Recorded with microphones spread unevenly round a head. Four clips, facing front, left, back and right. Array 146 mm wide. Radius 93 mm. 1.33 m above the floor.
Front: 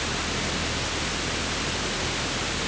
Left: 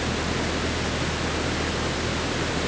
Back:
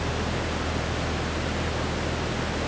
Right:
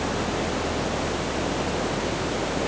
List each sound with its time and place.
0.0 s a fan: 100° left